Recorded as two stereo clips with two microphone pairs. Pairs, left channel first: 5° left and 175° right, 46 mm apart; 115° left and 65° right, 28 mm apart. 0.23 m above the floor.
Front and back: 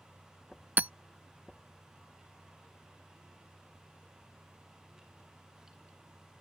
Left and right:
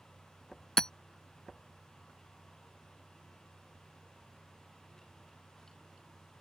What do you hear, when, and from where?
0.8 s hammering: 165° left